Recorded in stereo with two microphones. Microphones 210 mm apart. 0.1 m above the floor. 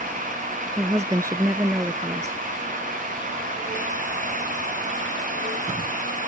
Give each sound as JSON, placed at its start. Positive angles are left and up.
{"t": 0.8, "sound": "a woman speaking", "side_deg": -15}